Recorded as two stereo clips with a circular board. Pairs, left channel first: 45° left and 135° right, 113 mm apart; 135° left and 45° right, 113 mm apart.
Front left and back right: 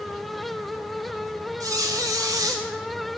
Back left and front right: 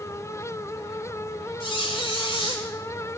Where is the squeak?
170° left, 1.7 m.